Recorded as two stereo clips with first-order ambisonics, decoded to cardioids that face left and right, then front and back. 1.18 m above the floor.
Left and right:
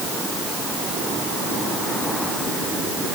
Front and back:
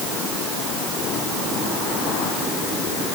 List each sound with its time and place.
Only background noise.